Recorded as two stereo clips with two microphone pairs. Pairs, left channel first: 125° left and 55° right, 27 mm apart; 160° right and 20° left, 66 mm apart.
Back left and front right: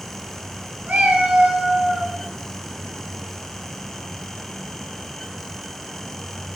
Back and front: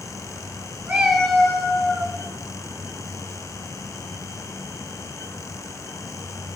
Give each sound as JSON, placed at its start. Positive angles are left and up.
{"t": 0.9, "sound": "a cat meowing", "azimuth_deg": -40, "distance_m": 0.5}